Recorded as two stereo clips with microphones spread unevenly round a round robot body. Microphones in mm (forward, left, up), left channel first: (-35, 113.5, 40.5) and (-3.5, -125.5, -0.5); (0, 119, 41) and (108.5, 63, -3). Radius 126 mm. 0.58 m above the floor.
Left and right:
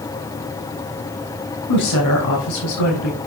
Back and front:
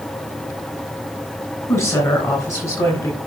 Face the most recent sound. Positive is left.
turn(degrees=80)